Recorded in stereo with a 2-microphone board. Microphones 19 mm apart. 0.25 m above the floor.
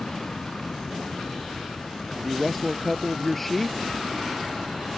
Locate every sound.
0.0 s an aircraft: 60° left (ahead or behind); by 5.0 s 65° left (ahead or behind)
2.2 s a man speaking: 10° left (ahead or behind)